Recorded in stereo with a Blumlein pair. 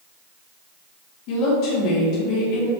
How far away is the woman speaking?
About 2.5 m.